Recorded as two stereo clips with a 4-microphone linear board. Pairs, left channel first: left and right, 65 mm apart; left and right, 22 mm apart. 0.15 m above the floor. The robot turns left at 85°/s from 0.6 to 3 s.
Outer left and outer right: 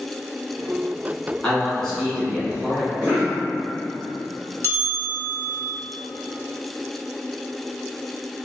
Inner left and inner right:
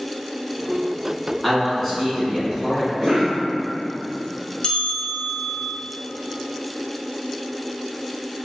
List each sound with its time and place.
1.4 s a man speaking: 20° left (ahead or behind), 1.2 m; by 2.9 s 20° right (ahead or behind), 1.2 m
3.0 s a cough: 30° right (ahead or behind), 1.8 m
4.6 s a bell: 45° left (ahead or behind), 0.5 m